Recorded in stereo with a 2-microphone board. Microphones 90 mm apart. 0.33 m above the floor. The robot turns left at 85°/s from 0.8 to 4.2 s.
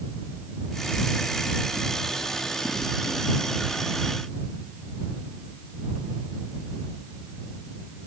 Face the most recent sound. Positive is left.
No sound to turn to.